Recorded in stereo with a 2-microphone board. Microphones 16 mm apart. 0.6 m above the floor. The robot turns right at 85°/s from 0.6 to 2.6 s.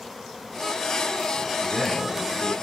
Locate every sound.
1.6 s a man speaking: 170° left, 5 m; by 2.5 s 110° right, 5 m